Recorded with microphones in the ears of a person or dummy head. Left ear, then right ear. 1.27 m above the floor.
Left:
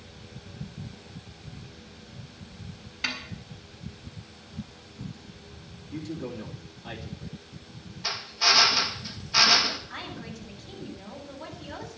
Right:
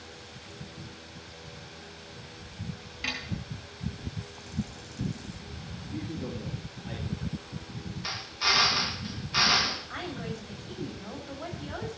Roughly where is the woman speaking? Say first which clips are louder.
Right 2 dB; right.